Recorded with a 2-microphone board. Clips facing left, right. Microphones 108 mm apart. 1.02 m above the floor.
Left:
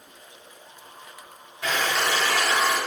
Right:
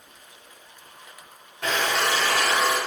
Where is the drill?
60° right (ahead or behind), 1.2 m.